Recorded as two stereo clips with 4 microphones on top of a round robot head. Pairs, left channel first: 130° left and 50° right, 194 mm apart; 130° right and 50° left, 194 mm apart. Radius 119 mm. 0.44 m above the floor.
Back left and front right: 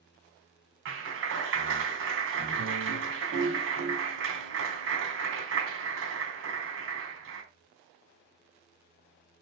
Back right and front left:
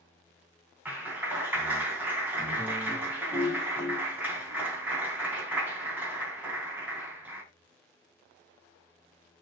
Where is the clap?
30° right, 3 m.